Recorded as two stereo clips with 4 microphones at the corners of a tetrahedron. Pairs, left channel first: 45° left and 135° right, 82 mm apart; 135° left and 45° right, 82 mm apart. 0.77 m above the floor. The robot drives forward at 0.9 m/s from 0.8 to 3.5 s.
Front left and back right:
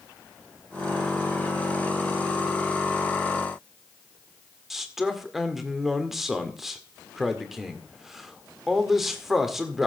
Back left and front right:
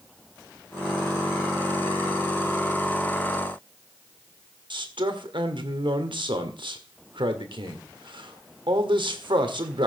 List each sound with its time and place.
4.7 s a man speaking: 50° right, 1.9 m